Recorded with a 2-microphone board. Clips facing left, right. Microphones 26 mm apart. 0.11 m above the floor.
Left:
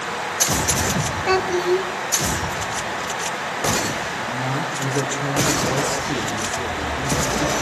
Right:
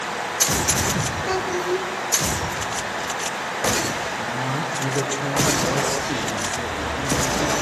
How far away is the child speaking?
About 1.0 m.